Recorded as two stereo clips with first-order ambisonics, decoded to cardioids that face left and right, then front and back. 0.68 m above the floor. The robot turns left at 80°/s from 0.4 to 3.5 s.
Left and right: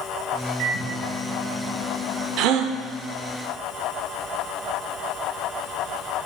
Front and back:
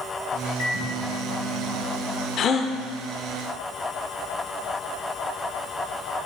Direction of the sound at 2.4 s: 55° right.